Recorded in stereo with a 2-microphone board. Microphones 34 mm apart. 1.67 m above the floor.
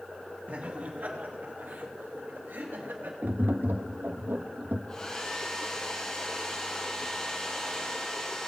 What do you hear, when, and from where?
0.5 s laughter: 45° right (ahead or behind), 2 m; by 3.1 s 80° right, 3 m
3.2 s tapping: 75° right (ahead or behind), 0.7 m
4.9 s a hair dryer: 20° left (ahead or behind), 1.2 m